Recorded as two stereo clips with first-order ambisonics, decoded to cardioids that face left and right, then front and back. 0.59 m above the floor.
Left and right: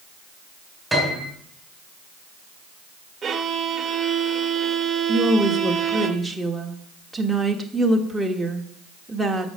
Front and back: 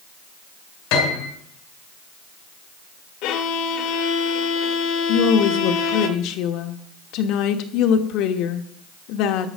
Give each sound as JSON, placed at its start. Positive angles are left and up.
{"t": 0.9, "sound": "a piano", "azimuth_deg": 0, "distance_m": 3.5}
{"t": 3.2, "sound": "a violin", "azimuth_deg": -20, "distance_m": 1.2}
{"t": 5.1, "sound": "a woman speaking", "azimuth_deg": -5, "distance_m": 1.1}